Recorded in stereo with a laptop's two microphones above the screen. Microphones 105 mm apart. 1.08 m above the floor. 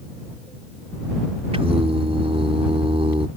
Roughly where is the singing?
Right.